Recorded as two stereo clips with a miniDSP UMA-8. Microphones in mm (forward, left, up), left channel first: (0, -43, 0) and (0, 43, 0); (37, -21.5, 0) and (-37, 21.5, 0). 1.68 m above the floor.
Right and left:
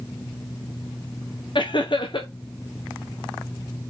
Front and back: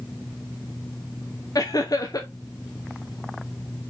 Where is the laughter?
75° right, 1.0 m.